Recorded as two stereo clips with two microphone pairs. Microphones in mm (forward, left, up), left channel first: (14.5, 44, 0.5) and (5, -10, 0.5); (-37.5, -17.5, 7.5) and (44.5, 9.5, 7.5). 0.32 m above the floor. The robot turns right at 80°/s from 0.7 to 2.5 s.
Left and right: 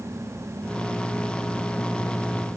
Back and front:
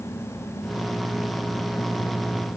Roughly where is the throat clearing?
No throat clearing in this recording.